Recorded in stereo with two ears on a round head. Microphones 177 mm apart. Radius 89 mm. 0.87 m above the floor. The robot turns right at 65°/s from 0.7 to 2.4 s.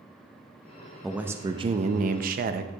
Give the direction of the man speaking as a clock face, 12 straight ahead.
6 o'clock.